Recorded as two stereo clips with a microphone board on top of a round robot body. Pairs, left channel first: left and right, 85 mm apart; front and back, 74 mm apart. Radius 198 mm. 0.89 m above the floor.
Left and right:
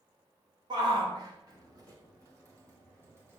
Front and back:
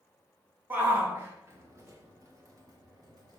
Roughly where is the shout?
Behind right.